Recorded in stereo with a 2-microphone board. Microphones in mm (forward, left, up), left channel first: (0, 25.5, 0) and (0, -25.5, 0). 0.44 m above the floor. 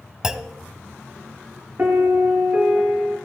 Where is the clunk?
15° right (ahead or behind), 0.9 m.